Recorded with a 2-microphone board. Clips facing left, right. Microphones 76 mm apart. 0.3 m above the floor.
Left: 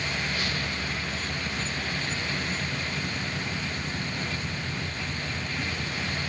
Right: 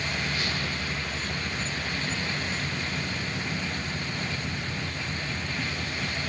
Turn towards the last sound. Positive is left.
No sound to turn to.